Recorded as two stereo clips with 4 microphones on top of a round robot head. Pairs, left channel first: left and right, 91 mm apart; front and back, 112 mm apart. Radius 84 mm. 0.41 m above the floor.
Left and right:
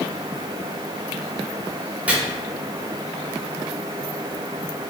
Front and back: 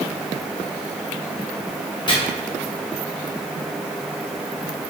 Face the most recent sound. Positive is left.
turn(degrees=-20)